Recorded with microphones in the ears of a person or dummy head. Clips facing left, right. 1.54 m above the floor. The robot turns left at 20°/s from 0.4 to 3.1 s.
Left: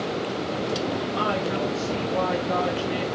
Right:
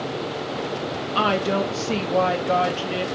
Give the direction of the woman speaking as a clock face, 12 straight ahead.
3 o'clock.